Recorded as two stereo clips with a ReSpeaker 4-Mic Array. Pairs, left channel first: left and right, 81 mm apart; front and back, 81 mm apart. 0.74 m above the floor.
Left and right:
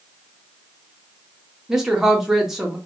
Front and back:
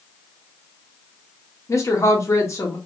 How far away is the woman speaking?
About 1.0 m.